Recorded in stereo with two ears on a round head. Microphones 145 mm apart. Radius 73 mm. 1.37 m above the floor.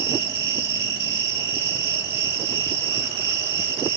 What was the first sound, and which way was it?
An insect, 65° right (ahead or behind).